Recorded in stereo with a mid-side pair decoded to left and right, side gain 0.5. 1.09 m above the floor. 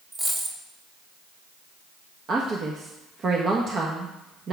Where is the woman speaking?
45° right, 1.1 m.